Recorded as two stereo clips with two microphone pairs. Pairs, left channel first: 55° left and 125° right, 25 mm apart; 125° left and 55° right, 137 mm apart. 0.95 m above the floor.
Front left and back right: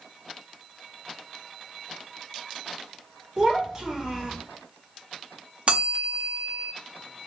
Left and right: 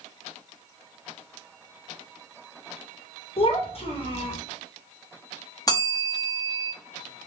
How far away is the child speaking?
About 1.2 m.